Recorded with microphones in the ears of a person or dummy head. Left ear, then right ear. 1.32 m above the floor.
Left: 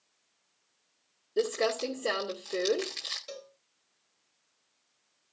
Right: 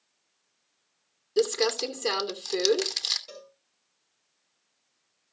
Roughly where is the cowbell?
Centre.